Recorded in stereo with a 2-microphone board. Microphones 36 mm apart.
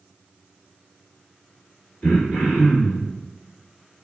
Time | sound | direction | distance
2.0 | throat clearing | 35° left (ahead or behind) | 1.3 m